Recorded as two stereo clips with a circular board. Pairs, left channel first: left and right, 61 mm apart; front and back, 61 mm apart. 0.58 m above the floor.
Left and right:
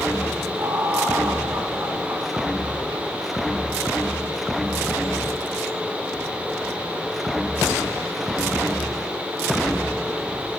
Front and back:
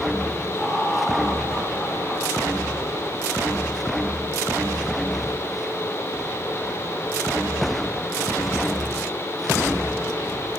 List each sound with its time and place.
0.6 s laughter: 95° right, 3.5 m